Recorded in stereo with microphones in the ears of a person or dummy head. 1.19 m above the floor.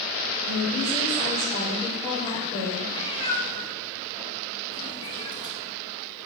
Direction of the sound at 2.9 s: 30° left (ahead or behind).